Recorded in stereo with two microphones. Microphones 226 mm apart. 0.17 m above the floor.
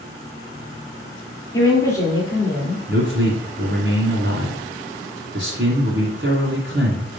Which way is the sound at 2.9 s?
50° right (ahead or behind).